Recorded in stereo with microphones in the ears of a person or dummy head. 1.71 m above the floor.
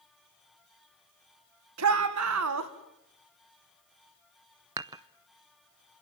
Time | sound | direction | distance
1.8 | a shout | 85° right | 2.0 m
4.8 | dishes clattering | 15° right (ahead or behind) | 0.7 m